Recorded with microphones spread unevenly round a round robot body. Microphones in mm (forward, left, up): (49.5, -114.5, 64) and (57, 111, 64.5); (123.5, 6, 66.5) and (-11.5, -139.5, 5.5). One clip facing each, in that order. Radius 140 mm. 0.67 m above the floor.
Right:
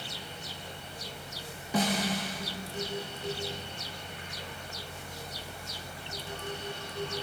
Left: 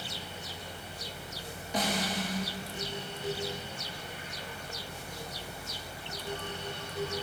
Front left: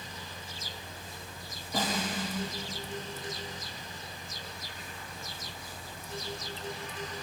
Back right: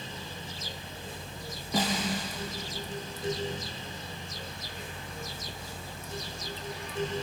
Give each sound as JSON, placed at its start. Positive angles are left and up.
{"t": 1.7, "sound": "a snare drum", "azimuth_deg": -115, "distance_m": 2.5}